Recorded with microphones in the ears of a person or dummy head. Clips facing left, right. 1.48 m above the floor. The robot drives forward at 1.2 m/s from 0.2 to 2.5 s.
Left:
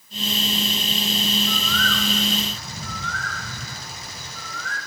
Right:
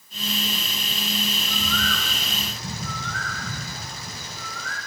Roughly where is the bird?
Right.